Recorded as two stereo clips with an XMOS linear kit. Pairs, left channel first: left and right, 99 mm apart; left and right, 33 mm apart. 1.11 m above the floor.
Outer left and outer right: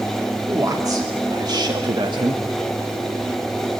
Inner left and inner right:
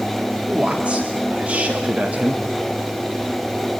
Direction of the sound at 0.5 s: 35° right (ahead or behind).